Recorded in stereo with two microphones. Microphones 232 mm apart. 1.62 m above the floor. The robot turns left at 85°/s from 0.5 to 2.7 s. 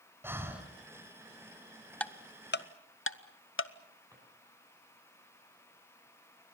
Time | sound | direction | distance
0.2 | breathing | 10° right (ahead or behind) | 3 m
2.0 | ticking | 5° left (ahead or behind) | 0.8 m
4.1 | a drawer | 15° right (ahead or behind) | 10 m